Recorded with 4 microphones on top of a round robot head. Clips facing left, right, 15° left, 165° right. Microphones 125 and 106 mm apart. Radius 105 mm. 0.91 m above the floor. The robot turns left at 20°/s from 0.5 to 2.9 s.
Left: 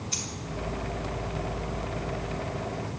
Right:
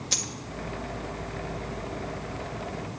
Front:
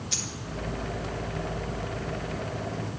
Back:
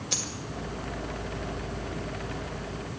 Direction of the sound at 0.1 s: 115° right.